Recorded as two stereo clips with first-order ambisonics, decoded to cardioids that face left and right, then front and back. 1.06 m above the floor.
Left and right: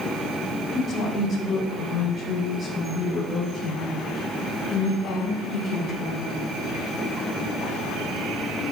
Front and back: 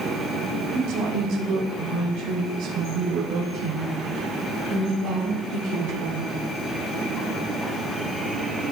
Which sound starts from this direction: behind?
A woman speaking, at 0.7 s.